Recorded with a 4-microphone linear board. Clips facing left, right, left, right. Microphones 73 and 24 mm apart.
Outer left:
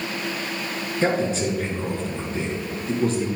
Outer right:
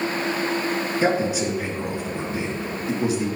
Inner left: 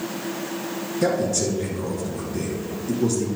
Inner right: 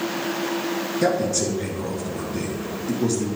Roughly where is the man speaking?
Centre.